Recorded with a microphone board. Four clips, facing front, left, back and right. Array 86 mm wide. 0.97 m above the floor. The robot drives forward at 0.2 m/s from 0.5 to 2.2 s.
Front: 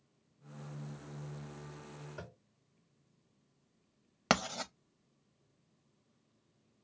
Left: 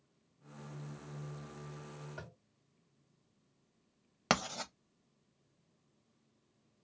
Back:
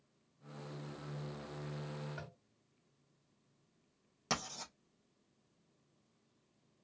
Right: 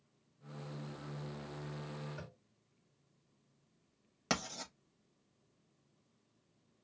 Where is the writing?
35° left, 0.5 m.